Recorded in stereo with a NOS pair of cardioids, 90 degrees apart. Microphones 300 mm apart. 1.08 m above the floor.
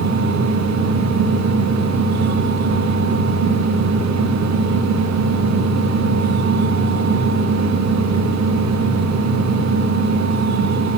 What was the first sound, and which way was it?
A fan, 70° right.